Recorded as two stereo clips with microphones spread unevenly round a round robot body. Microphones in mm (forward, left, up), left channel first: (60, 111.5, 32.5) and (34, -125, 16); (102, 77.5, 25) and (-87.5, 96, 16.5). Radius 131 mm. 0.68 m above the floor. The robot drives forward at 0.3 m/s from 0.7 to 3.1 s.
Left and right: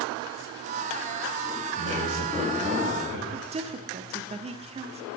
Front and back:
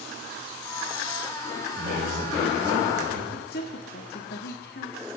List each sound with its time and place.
1.8 s a man speaking: 130° right, 3.5 m; by 3.2 s 135° right, 3.5 m
3.3 s a woman speaking: 40° right, 1.2 m